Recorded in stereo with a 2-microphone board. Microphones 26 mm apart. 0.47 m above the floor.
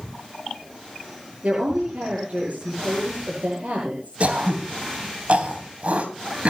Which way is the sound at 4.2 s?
55° right (ahead or behind).